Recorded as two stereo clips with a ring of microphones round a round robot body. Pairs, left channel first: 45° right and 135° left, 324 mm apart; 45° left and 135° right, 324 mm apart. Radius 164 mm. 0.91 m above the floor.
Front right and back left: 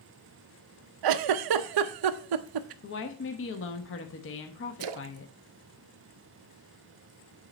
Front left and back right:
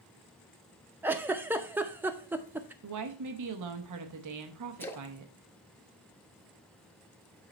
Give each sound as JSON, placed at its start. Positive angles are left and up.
{"t": 1.0, "sound": "a giggle", "azimuth_deg": 140, "distance_m": 0.6}
{"t": 2.8, "sound": "a woman speaking", "azimuth_deg": -100, "distance_m": 0.9}
{"t": 4.8, "sound": "a splash", "azimuth_deg": 130, "distance_m": 0.7}